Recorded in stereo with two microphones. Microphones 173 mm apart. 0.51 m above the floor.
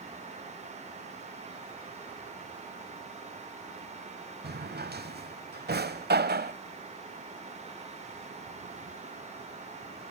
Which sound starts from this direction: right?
A drawer, at 4.4 s.